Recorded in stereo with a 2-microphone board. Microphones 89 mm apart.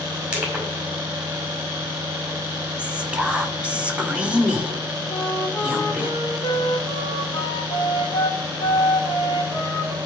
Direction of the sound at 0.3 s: 15° right (ahead or behind).